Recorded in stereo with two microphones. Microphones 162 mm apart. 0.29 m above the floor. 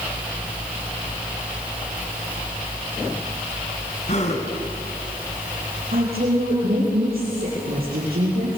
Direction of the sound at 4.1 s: 45° left (ahead or behind).